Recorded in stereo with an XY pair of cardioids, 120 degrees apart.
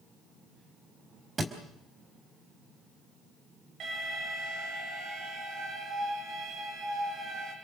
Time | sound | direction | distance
1.4 | a thud | 30° right | 4 m
3.8 | an alarm | 55° right | 8 m